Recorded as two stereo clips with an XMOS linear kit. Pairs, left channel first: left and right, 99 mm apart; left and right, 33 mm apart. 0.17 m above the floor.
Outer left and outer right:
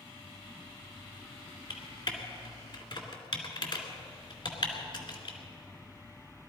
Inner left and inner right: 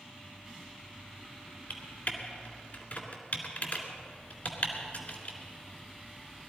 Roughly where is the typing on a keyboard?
Left.